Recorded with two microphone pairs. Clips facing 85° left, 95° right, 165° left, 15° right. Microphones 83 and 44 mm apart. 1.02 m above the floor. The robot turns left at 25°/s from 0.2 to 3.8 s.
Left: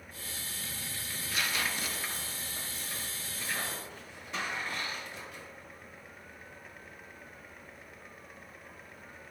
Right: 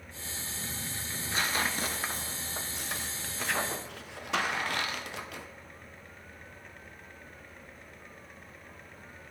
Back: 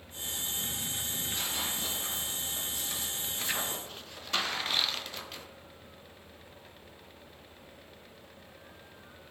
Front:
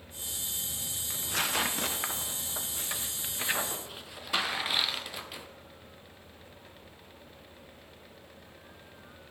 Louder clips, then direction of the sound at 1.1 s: Right 3 dB, front 8 dB; 30° right.